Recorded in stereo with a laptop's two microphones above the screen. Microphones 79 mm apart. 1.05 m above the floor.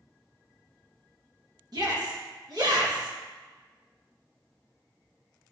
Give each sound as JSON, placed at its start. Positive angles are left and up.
{"t": 1.7, "sound": "a shout", "side_deg": -55, "distance_m": 1.6}